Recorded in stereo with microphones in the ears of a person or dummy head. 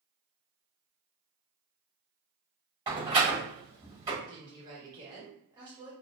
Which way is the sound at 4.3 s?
20° right (ahead or behind).